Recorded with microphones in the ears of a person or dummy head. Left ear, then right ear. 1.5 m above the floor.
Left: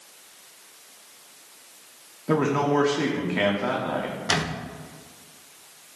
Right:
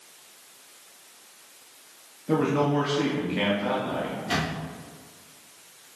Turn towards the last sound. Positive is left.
turn(degrees=50)  # may be behind; listen again after turning